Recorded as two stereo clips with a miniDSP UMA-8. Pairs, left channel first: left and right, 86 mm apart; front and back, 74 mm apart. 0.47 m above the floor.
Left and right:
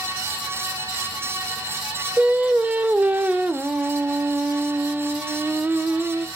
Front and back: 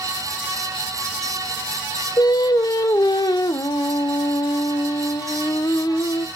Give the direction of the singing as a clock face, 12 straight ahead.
1 o'clock.